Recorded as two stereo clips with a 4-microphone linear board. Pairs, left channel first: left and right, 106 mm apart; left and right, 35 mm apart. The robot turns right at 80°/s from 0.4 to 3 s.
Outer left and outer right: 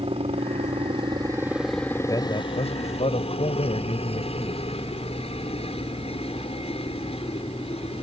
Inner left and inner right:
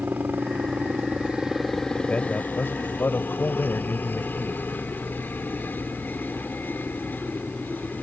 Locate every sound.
0.0 s a helicopter: 105° right; by 8.0 s 105° left
2.1 s a man speaking: 35° left; by 4.6 s 105° left